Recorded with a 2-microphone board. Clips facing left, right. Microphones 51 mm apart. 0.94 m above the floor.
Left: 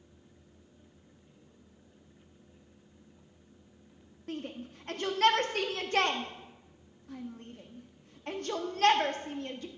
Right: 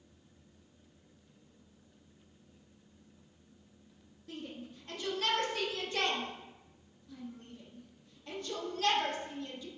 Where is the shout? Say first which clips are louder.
Left 5 dB; 55° left (ahead or behind), 1.7 m.